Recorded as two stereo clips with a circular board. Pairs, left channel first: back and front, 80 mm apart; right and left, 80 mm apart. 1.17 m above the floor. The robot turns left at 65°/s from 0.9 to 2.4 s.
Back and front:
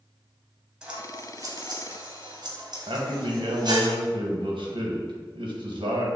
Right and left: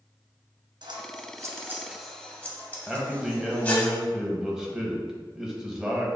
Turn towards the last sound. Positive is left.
turn(degrees=10)